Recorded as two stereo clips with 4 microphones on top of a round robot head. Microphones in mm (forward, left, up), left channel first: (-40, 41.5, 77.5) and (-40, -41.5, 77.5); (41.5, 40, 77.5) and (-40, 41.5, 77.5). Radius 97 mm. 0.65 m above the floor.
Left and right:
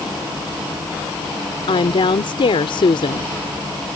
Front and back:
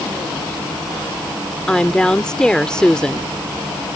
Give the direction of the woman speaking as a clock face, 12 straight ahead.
9 o'clock.